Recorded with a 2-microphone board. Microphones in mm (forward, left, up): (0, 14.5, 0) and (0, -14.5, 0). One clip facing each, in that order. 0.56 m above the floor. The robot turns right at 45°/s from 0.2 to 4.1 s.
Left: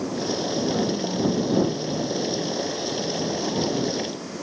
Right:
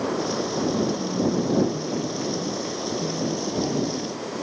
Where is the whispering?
170° right; by 4.0 s 25° right.